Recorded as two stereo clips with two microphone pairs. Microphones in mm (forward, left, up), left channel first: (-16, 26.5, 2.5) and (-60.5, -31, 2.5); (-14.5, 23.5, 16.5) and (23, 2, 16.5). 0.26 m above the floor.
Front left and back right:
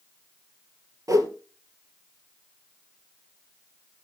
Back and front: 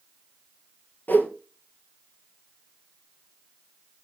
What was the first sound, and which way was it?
A whoosh, 165° right.